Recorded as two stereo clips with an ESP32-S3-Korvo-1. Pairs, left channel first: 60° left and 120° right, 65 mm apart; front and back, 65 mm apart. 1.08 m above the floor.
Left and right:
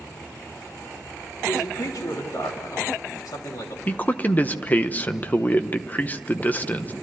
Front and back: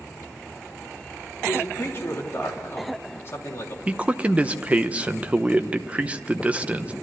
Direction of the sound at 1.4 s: 50° left.